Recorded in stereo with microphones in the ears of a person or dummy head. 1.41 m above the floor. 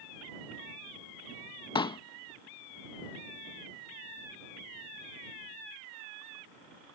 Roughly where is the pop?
Centre.